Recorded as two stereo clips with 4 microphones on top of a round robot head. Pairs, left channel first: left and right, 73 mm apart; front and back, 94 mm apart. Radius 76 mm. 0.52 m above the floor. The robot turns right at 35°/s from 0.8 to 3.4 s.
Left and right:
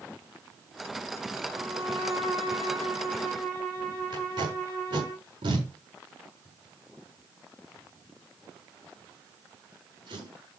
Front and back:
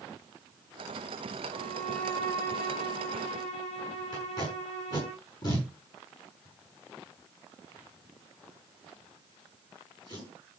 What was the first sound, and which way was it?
A violin, 90° right.